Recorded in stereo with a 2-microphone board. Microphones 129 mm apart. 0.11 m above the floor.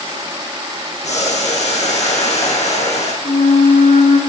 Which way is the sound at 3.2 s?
75° left (ahead or behind).